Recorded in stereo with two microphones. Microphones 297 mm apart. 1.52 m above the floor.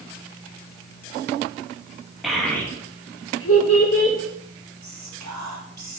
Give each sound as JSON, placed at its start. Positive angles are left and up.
{"t": 2.2, "sound": "a child speaking", "side_deg": 0, "distance_m": 1.7}
{"t": 4.8, "sound": "whispering", "side_deg": -80, "distance_m": 1.5}